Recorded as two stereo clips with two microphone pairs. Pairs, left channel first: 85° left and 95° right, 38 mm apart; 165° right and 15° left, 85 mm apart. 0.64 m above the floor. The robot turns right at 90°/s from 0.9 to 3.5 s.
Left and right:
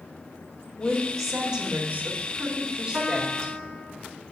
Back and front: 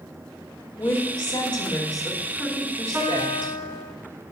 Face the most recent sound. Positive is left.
turn(degrees=-5)